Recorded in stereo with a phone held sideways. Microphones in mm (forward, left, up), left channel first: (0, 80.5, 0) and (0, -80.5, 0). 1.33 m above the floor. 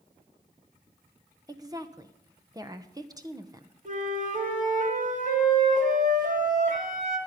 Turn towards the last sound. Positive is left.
turn(degrees=-55)  # may be behind; listen again after turning